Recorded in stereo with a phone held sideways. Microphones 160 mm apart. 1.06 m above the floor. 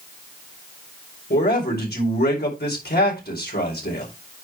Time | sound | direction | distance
1.3 | a man speaking | 80° left | 4.5 m